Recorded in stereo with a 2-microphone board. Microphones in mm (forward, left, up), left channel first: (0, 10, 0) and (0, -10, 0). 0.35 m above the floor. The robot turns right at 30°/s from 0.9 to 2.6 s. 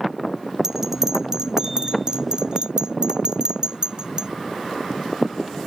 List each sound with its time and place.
0.6 s a bell: 25° right (ahead or behind); by 4.3 s 45° right (ahead or behind)